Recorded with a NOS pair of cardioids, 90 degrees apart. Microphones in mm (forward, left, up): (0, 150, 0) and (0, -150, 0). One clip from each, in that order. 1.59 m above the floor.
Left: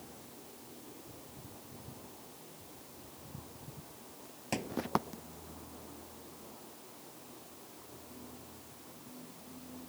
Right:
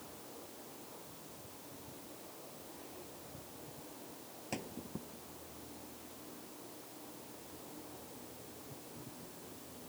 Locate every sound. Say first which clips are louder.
4.5 s a thud: left 7 dB; 45° left